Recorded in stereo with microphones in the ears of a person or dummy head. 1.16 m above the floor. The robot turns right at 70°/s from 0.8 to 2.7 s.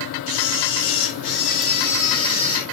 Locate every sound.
0.3 s a camera shutter: 80° left, 1.1 m; by 2.6 s 150° right, 1.1 m